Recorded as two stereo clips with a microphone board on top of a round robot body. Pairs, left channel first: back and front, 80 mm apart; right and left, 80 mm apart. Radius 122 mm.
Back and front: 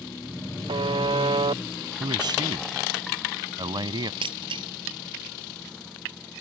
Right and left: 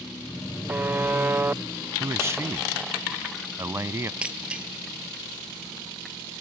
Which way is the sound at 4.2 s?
15° left.